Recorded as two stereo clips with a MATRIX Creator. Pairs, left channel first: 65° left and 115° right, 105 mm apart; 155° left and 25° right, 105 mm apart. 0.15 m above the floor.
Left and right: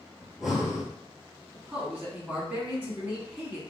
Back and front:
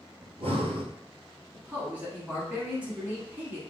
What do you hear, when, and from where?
0.2 s breathing: 25° right, 0.7 m
1.5 s a man speaking: 65° right, 1.0 m